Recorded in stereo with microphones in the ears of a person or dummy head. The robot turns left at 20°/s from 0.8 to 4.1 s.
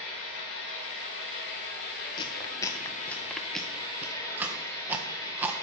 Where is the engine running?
80° left, 3.5 m; by 5.6 s 15° left, 3.5 m.